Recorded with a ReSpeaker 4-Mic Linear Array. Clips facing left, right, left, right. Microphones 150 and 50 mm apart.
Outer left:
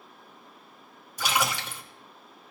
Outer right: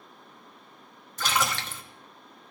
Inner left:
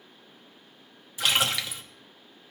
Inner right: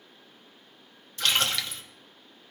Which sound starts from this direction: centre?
A splash, at 1.2 s.